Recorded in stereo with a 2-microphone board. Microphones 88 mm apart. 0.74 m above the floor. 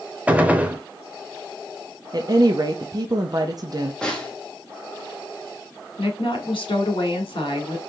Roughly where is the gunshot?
Centre.